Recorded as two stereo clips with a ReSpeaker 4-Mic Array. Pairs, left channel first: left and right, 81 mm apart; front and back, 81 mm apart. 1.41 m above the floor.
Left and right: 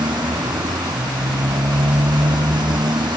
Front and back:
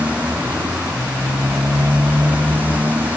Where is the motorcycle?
105° right; by 3.2 s 110° right.